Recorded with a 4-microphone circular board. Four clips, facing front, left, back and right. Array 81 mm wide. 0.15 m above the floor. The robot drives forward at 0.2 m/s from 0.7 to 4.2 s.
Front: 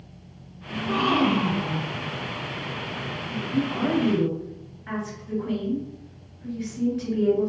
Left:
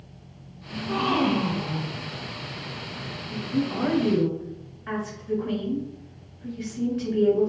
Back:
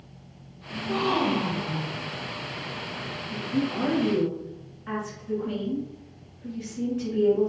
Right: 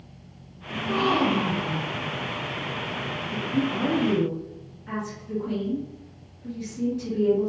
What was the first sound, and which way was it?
A gasp, 5° right.